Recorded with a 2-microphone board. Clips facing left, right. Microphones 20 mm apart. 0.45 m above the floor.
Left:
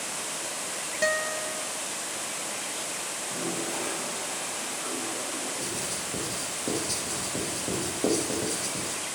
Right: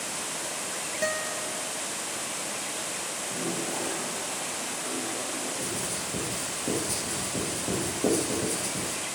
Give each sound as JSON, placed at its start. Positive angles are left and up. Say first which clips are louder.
{"t": 1.0, "sound": "a guitar", "louder": "left 4 dB", "side_deg": 20, "distance_m": 0.6}
{"t": 3.2, "sound": "a toilet flushing", "louder": "even", "side_deg": 45, "distance_m": 4.5}
{"t": 5.6, "sound": "writing", "louder": "even", "side_deg": 35, "distance_m": 8.5}